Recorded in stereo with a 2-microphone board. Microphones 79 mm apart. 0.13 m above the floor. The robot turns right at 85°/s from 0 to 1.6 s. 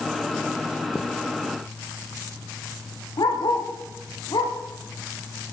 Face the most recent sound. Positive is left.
turn(degrees=70)  # may be behind; listen again after turning